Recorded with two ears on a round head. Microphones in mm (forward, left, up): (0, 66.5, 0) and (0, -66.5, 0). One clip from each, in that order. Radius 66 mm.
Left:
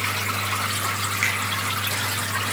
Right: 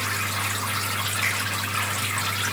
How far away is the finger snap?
About 9 m.